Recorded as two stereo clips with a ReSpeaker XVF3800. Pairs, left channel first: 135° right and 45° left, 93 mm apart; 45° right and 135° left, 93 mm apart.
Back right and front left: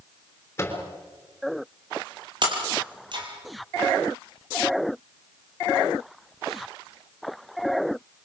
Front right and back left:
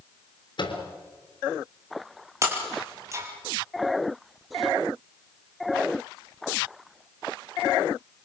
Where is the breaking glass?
80° left, 4.5 m.